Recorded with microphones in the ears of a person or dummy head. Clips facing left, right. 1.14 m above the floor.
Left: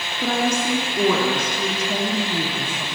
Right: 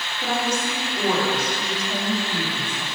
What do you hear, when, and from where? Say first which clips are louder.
0.2 s a woman speaking: left 3 dB; 70° left (ahead or behind), 1.0 m